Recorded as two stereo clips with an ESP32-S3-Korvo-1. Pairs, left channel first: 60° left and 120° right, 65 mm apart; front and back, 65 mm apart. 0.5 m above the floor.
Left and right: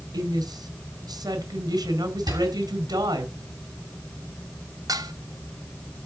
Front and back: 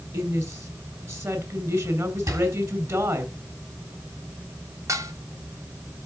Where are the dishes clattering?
140° right, 1.5 m.